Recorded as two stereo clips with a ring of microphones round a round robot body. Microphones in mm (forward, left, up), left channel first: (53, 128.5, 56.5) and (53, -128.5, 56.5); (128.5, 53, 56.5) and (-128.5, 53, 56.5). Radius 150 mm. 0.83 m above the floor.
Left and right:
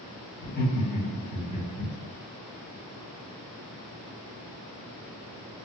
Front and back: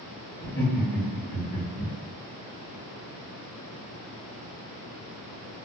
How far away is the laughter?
About 1.5 m.